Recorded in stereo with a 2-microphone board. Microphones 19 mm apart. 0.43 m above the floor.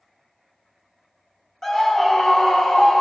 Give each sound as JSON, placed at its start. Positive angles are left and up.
{"t": 1.6, "sound": "a scream", "side_deg": 20, "distance_m": 0.9}